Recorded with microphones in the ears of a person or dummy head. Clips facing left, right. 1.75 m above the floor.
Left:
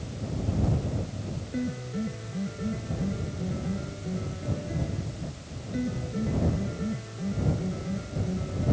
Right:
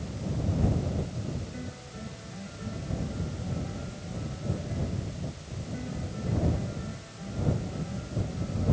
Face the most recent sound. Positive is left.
turn(degrees=55)  # may be behind; listen again after turning